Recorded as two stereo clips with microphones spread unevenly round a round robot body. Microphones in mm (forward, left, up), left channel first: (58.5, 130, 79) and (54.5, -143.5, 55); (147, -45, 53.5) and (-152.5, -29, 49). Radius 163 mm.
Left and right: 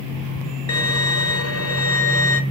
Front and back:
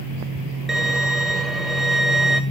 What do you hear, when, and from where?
0.7 s a violin: 90° left, 2 m